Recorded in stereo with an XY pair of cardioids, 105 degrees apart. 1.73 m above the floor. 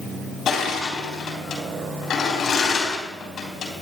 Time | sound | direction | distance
0.5 | crushing | 60° left | 4 m